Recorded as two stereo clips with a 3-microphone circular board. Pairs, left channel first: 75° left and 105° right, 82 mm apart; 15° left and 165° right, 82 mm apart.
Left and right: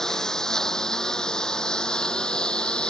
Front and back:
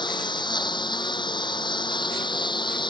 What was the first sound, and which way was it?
A lawn mower, 10° right.